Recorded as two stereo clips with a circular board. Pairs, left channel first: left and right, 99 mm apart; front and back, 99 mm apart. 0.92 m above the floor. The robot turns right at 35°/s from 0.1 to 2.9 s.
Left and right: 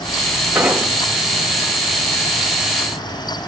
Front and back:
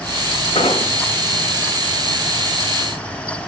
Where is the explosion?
20° right, 2.5 m; by 0.9 s 5° right, 2.5 m.